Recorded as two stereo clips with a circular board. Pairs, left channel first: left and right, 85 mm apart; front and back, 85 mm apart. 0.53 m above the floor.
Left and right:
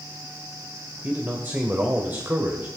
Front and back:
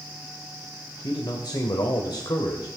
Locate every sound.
1.0 s a man speaking: 25° right, 1.9 m